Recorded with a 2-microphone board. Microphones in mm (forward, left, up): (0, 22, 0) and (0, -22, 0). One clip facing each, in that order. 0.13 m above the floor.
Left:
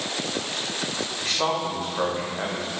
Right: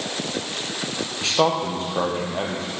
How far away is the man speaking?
About 4.5 m.